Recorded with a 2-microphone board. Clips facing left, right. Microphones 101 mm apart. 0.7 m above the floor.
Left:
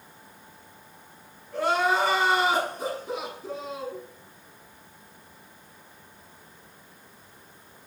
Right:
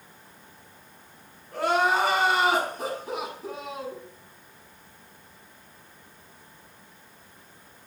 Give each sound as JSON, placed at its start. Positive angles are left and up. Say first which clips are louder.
{"t": 1.5, "sound": "crying", "louder": "right 1 dB", "side_deg": -70, "distance_m": 5.0}